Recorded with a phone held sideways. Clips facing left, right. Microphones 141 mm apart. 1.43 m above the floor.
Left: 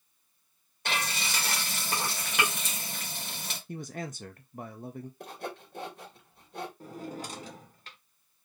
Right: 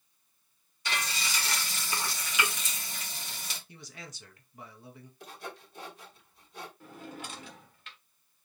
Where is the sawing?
55° left (ahead or behind), 2.0 m.